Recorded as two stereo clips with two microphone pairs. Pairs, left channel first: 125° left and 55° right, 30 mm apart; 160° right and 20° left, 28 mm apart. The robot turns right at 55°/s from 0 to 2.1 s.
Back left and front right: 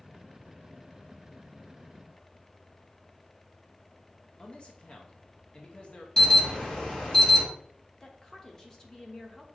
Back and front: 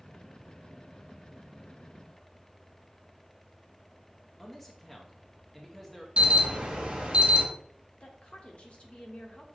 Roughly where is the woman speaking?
Behind.